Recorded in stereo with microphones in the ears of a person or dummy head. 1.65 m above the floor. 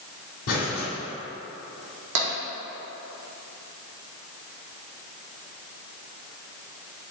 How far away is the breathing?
About 1.9 m.